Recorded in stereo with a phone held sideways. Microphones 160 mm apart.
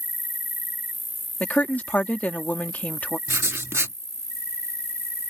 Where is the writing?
15° right (ahead or behind).